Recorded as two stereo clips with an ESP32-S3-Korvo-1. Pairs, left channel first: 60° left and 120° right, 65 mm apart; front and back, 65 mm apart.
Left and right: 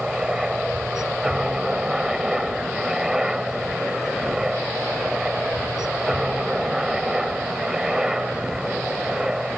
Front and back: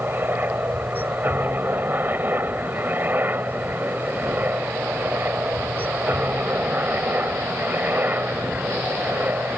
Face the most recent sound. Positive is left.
turn(degrees=165)